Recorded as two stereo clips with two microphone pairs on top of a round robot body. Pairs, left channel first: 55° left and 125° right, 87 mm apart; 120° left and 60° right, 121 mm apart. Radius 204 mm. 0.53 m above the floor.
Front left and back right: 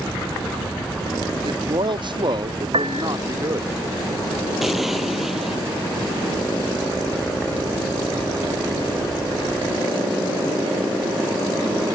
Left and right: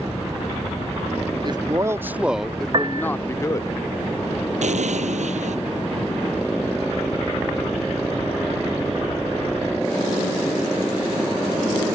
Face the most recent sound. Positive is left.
turn(degrees=-40)